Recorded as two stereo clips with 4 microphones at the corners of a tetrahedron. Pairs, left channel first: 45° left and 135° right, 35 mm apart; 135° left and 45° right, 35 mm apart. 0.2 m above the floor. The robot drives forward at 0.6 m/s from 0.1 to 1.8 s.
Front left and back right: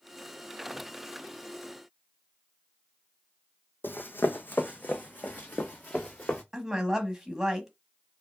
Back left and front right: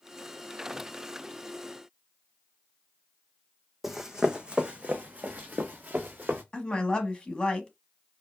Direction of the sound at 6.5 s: 160° left.